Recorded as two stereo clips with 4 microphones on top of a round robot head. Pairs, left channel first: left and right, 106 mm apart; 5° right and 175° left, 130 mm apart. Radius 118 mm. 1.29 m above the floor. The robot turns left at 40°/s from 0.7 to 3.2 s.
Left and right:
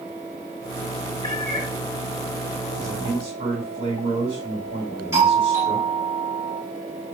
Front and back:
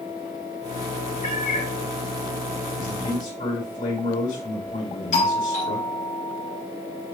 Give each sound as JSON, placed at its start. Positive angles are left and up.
{"t": 1.2, "sound": "a cat meowing", "azimuth_deg": 20, "distance_m": 2.5}
{"t": 2.8, "sound": "a man speaking", "azimuth_deg": -25, "distance_m": 2.5}
{"t": 5.1, "sound": "a doorbell", "azimuth_deg": -25, "distance_m": 2.5}